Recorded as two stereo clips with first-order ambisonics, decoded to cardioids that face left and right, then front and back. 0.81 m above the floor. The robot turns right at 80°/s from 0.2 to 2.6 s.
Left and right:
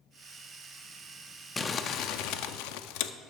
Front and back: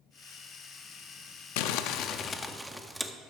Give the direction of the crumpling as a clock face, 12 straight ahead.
12 o'clock.